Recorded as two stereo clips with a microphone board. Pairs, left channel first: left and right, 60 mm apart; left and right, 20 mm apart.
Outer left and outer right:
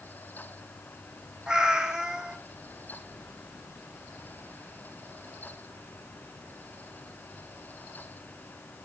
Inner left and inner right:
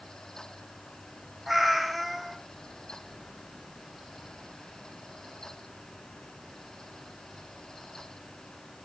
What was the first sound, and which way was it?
A cat meowing, 10° right (ahead or behind).